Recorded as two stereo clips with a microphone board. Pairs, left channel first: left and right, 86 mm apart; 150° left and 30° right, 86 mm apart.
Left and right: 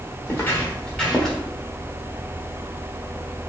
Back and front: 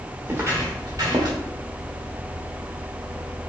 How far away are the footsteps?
About 1.1 m.